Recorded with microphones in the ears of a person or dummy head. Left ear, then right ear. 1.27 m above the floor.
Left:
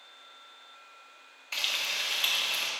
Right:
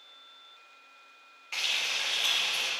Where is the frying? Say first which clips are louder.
Right 1 dB; 25° left (ahead or behind), 1.4 m.